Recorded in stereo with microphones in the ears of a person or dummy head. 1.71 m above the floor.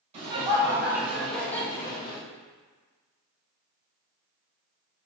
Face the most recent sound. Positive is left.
turn(degrees=40)  # may be behind; listen again after turning